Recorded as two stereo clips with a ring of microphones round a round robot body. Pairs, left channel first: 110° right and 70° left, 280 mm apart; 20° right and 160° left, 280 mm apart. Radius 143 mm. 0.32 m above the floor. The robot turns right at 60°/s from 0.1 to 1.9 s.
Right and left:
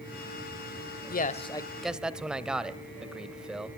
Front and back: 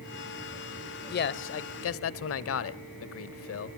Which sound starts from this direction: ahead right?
A man speaking, at 1.1 s.